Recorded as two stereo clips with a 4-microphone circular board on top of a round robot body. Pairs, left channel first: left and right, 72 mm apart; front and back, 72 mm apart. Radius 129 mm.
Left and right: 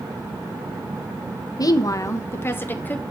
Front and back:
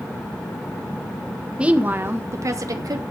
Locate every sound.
1.6 s a woman speaking: 105° left, 1.5 m; by 3.0 s 155° left, 2.5 m